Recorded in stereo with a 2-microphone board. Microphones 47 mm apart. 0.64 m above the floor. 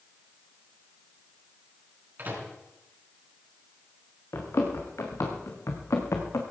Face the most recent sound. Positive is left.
turn(degrees=75)  # may be behind; listen again after turning